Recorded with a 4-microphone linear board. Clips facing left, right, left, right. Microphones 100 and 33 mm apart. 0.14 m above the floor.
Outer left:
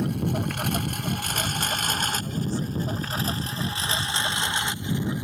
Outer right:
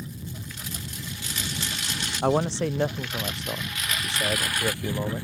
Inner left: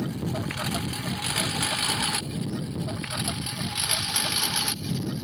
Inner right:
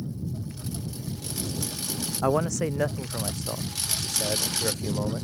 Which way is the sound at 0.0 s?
65° left (ahead or behind).